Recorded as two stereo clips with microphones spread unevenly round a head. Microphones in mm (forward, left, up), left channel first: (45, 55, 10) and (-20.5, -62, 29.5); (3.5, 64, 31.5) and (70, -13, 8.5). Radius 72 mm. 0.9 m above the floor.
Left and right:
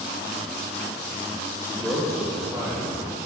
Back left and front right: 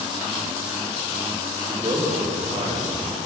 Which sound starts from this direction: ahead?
A man speaking, at 1.7 s.